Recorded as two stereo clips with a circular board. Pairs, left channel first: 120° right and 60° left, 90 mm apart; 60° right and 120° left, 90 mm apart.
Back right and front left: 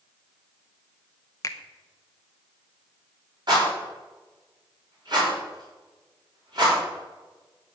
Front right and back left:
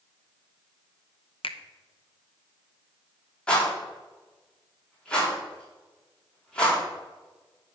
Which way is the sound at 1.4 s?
65° right.